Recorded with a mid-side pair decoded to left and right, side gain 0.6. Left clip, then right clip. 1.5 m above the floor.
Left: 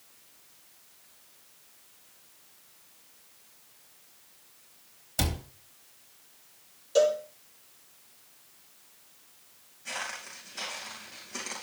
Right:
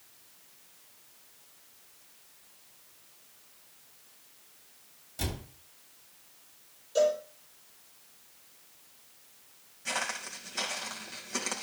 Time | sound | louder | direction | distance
5.2 | a cupboard door | left 6 dB | 65° left | 3.5 m
7.0 | a cowbell | left 2 dB | 40° left | 8.5 m
9.8 | footsteps | right 3 dB | 30° right | 5.5 m